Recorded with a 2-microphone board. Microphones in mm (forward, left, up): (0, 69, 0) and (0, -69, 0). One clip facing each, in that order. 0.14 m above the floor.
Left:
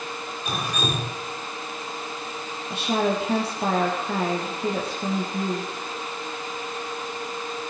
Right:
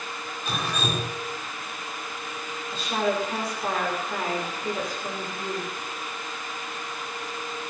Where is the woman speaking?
70° left (ahead or behind), 5 m.